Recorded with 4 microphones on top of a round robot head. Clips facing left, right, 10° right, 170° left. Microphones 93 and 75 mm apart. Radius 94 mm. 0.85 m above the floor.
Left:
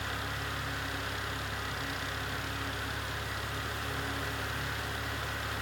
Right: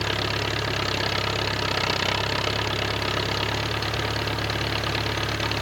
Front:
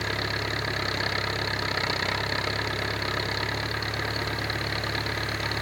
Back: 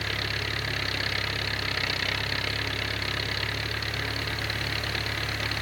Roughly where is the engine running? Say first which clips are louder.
Right 10 dB, front 3 dB; right.